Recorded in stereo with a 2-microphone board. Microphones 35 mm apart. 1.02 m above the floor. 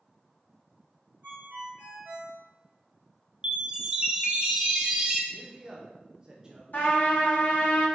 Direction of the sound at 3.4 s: 25° right (ahead or behind).